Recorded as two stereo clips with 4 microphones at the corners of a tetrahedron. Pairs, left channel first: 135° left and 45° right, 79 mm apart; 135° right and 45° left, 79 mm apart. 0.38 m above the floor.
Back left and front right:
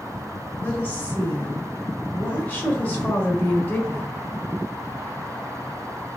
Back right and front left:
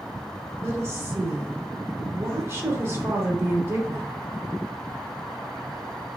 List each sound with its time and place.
0.6 s a woman speaking: 80° left, 1.1 m